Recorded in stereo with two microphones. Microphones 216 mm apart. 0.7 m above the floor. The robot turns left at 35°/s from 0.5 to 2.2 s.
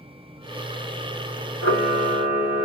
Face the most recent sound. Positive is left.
turn(degrees=60)  # may be behind; listen again after turning